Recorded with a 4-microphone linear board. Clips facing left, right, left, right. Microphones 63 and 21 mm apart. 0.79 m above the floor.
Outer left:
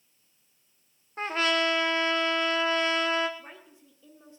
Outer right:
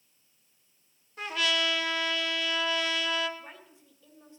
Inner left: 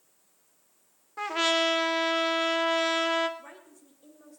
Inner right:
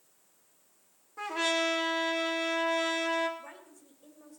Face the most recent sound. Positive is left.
turn(degrees=20)  # may be behind; listen again after turning